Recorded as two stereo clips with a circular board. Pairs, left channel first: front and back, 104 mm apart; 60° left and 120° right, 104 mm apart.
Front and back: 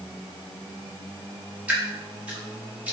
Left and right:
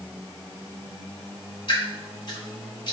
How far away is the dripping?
About 1.1 m.